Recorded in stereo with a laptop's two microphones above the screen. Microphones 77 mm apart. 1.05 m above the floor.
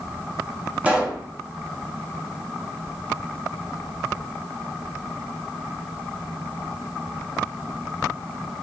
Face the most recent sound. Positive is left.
turn(degrees=-15)  # may be behind; listen again after turning